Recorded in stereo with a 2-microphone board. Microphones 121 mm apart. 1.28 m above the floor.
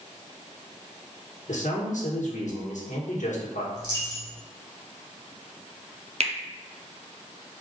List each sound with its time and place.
1.5 s a man speaking: 85° left, 1.1 m
3.8 s a dropped coin: 40° right (ahead or behind), 1.6 m
6.2 s a finger snap: 55° right (ahead or behind), 0.5 m